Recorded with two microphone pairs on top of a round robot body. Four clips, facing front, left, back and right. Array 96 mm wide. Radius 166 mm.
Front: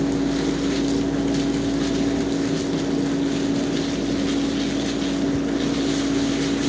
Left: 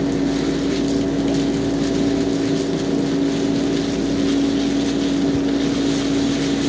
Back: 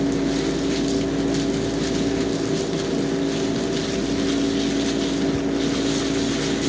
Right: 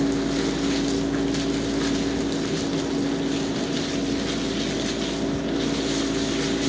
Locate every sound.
Only background noise.